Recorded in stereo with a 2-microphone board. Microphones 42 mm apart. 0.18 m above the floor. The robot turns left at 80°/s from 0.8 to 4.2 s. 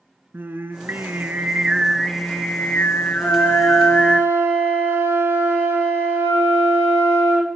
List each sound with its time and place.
0.3 s singing: 85° right, 0.6 m; by 4.2 s straight ahead, 0.6 m
3.2 s a flute: 25° right, 6.5 m; by 7.5 s 105° right, 6.5 m